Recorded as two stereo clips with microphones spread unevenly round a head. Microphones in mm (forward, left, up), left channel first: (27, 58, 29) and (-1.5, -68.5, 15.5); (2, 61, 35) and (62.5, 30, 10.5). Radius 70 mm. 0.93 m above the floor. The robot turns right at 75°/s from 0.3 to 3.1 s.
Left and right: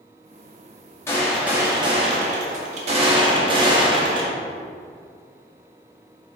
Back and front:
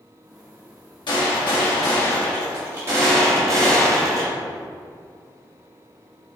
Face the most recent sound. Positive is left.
turn(degrees=-55)